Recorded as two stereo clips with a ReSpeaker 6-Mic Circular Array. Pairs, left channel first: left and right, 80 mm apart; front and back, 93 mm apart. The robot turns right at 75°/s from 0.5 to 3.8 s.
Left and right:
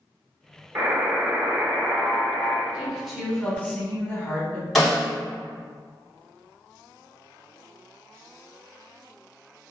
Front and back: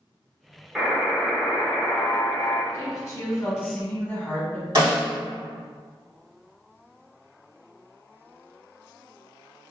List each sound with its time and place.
0.8 s a buzzer: 100° right, 0.8 m; by 2.6 s 45° left, 0.8 m
2.7 s a woman speaking: 30° right, 1.2 m; by 4.7 s 50° left, 1.2 m
4.8 s a snare drum: straight behind, 2.0 m